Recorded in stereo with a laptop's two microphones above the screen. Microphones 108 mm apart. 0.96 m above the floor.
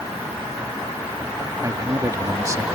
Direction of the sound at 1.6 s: 30° right (ahead or behind).